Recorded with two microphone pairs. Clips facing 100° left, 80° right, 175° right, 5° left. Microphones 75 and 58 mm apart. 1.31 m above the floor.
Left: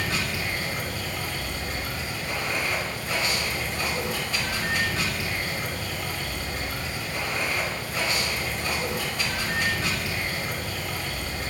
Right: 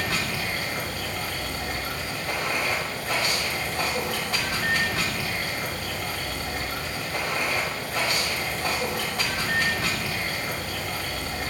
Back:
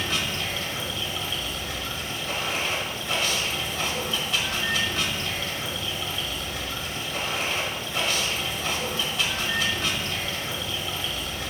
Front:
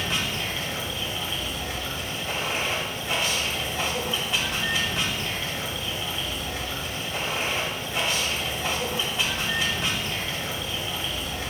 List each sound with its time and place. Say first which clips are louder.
0.0 s running water: right 1 dB, even; 55° right, 1.5 m